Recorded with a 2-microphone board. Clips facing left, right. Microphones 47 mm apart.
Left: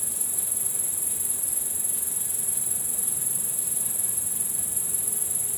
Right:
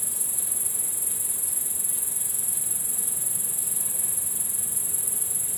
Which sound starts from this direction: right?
An insect, at 0.0 s.